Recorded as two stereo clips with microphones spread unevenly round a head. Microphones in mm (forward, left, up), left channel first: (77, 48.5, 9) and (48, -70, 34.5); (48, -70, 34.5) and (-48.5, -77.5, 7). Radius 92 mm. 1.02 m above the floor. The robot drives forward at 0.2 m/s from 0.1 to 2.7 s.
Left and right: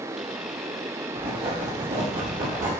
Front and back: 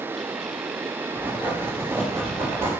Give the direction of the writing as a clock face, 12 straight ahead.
4 o'clock.